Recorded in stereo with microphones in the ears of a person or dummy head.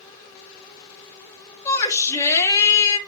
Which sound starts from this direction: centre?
A shout, at 1.6 s.